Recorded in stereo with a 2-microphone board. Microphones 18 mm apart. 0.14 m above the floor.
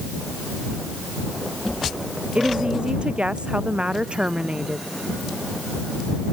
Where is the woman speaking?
75° right (ahead or behind).